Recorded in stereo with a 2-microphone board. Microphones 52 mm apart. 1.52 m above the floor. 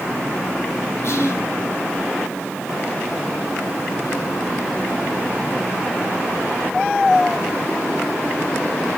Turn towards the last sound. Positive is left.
turn(degrees=60)  # may be behind; listen again after turning